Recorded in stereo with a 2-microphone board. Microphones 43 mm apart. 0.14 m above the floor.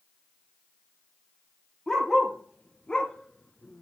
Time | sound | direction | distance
1.9 | a dog barking | 15° left (ahead or behind) | 1.4 m